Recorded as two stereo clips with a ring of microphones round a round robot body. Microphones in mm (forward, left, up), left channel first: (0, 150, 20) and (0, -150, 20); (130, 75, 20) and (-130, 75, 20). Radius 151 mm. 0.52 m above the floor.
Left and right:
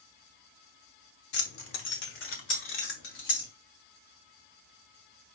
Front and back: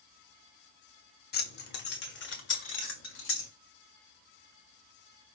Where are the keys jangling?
45° left, 1.0 m; by 3.5 s 40° left, 2 m.